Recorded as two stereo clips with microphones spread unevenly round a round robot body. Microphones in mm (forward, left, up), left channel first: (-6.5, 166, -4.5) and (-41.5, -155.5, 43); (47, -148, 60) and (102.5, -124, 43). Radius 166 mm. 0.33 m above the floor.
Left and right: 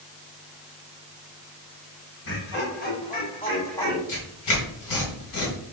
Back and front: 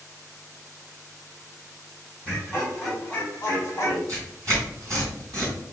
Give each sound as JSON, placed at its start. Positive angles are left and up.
{"t": 2.2, "sound": "laughter", "azimuth_deg": 60, "distance_m": 1.8}
{"t": 4.1, "sound": "tearing paper", "azimuth_deg": 55, "distance_m": 2.5}